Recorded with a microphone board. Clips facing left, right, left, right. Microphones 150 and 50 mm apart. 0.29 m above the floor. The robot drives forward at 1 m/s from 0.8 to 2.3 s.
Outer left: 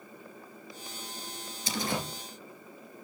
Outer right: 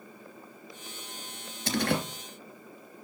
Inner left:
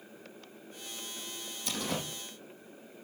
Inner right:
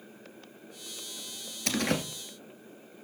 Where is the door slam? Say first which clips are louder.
Outer right 5 dB, inner right 6 dB; 65° right (ahead or behind), 3 m; by 2.1 s 70° right (ahead or behind), 2.5 m.